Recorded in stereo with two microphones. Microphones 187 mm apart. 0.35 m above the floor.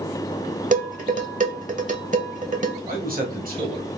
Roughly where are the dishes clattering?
Right.